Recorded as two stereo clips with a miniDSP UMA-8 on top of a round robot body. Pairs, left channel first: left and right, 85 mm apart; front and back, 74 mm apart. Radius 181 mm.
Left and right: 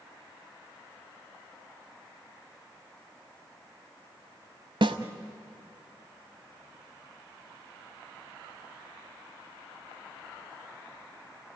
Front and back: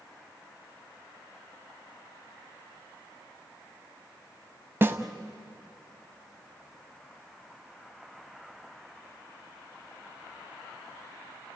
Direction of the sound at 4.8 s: 115° right.